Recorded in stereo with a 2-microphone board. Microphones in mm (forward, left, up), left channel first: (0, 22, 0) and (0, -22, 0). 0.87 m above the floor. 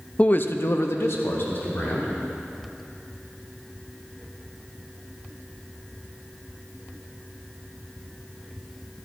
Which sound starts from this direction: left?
A man speaking, at 0.2 s.